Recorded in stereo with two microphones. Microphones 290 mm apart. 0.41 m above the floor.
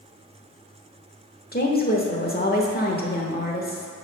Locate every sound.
1.5 s a woman speaking: 35° left (ahead or behind), 1.1 m